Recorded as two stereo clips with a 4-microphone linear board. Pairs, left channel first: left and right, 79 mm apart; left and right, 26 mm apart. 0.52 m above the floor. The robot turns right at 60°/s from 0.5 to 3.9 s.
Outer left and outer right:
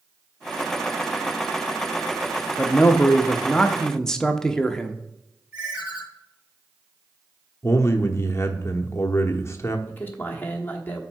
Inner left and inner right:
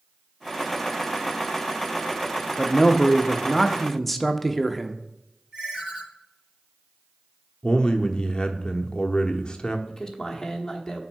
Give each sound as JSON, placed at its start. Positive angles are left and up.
{"t": 2.6, "sound": "a man speaking", "side_deg": 20, "distance_m": 0.6}
{"t": 5.5, "sound": "a ringtone", "side_deg": -20, "distance_m": 3.5}
{"t": 7.6, "sound": "a man speaking", "side_deg": 40, "distance_m": 0.9}
{"t": 9.9, "sound": "a man speaking", "side_deg": 25, "distance_m": 1.1}